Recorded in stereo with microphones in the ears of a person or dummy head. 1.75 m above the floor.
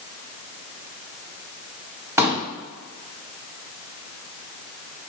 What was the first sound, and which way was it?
A pop, 5° right (ahead or behind).